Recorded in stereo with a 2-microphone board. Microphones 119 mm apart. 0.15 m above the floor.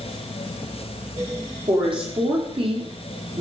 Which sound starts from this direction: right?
A woman speaking, at 1.7 s.